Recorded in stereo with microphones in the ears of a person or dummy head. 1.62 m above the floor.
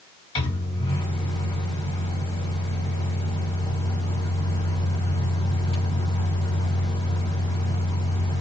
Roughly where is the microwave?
Left.